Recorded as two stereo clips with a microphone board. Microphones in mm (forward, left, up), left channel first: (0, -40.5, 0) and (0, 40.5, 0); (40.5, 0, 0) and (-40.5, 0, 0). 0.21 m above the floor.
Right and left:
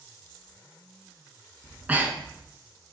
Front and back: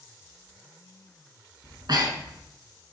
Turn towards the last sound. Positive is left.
turn(degrees=160)